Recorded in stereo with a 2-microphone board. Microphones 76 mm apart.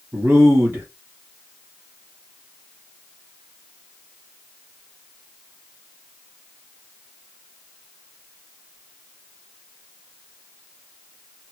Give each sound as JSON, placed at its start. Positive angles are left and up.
{"t": 0.1, "sound": "a man speaking", "side_deg": -35, "distance_m": 1.8}